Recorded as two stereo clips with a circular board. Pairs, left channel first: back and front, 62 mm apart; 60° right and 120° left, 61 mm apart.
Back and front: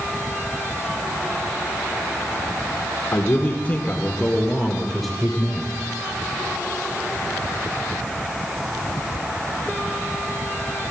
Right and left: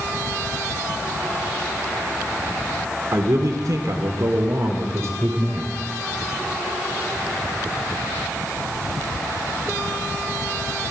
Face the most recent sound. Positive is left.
turn(degrees=80)